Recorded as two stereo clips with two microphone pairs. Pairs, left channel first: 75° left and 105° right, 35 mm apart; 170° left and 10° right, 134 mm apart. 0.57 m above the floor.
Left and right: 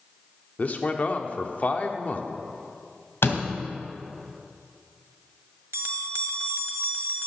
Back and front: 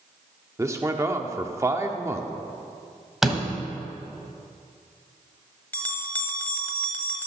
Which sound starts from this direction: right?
A bell, at 5.7 s.